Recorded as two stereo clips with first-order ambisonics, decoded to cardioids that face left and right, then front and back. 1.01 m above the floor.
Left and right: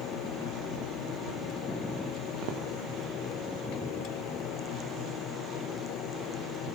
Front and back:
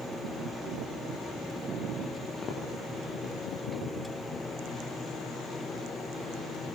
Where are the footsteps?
65° right, 8.5 m.